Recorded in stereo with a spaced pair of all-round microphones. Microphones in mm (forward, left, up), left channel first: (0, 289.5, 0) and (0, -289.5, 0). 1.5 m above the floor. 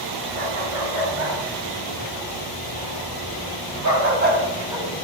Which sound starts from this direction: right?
A dog barking, at 0.3 s.